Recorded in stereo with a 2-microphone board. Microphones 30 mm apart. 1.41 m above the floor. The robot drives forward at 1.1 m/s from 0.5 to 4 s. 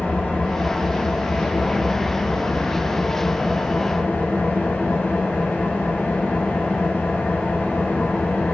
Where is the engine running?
75° left (ahead or behind), 7.5 m.